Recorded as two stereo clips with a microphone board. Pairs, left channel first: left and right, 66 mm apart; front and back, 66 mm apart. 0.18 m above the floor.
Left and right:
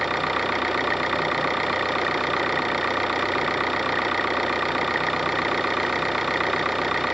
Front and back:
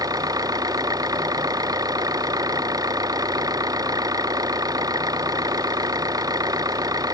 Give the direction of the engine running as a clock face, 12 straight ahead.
6 o'clock.